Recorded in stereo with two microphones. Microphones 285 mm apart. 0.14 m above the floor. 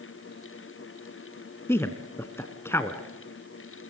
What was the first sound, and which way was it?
A man speaking, 10° left (ahead or behind).